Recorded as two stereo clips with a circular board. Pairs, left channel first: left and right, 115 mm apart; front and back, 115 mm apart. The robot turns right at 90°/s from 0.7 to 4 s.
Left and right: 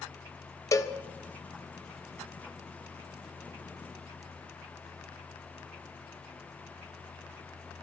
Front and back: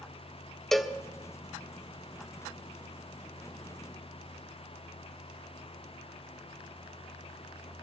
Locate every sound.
0.7 s a cowbell: 85° left, 1.0 m; by 0.9 s 105° left, 1.0 m